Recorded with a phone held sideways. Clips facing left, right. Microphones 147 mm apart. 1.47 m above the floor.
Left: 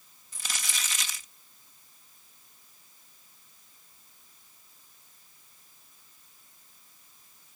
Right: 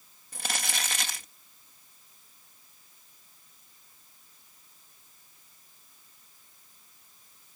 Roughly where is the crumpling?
Right.